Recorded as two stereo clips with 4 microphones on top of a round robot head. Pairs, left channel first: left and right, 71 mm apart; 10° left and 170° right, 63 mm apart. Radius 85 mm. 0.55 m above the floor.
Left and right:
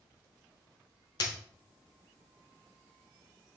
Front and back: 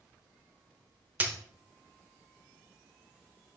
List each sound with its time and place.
1.2 s a dropped coin: 125° left, 0.7 m